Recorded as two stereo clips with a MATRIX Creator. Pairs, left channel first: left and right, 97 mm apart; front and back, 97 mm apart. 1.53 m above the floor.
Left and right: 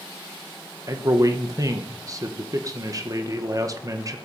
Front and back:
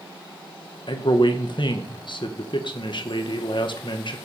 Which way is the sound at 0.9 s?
35° right.